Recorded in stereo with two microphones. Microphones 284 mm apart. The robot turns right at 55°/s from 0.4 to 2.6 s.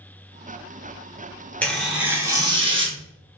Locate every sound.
1.6 s tearing paper: 5° left (ahead or behind), 0.7 m; by 3.0 s 20° right (ahead or behind), 0.7 m